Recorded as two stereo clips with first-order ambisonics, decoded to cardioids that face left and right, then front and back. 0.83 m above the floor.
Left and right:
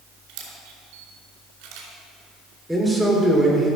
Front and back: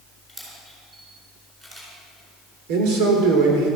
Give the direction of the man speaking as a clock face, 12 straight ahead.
6 o'clock.